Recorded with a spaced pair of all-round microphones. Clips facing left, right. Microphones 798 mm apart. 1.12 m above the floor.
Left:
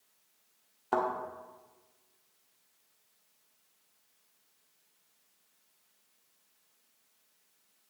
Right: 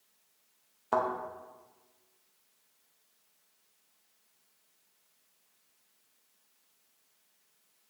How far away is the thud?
About 0.8 m.